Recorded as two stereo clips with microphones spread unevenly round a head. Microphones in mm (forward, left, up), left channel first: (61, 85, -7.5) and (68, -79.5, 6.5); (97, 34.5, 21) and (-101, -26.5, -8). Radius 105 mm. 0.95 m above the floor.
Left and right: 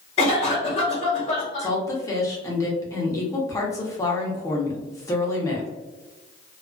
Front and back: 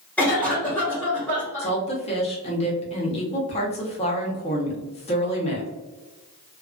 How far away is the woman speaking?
About 0.8 m.